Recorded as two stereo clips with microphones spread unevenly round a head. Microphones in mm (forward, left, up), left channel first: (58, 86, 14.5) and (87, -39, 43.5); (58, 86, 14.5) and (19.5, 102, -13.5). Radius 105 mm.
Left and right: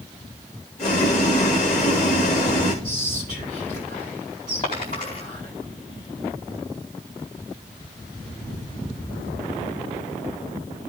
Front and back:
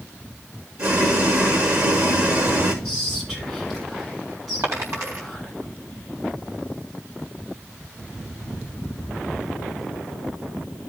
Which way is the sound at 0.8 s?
Straight behind.